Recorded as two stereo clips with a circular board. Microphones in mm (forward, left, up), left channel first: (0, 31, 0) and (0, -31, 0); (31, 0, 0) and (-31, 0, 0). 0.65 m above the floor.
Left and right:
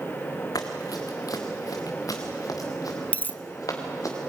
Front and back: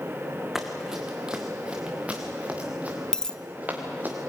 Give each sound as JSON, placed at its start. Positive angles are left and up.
{"t": 0.6, "sound": "running footsteps", "azimuth_deg": 95, "distance_m": 2.5}
{"t": 3.1, "sound": "a dropped coin", "azimuth_deg": 65, "distance_m": 0.6}